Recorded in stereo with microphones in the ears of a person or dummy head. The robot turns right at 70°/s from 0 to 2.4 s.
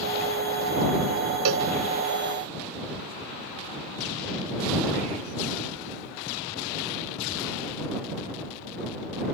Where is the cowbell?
75° right (ahead or behind); by 1.7 s 60° right (ahead or behind).